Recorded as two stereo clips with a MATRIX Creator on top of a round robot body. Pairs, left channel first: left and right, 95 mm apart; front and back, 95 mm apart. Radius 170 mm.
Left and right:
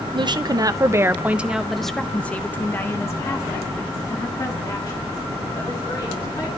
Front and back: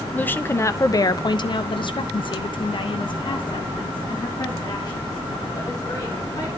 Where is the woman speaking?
70° right, 1.1 m; by 6.5 s 45° left, 3.5 m.